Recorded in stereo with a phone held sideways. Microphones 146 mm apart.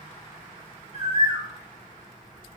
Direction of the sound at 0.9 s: 40° right (ahead or behind).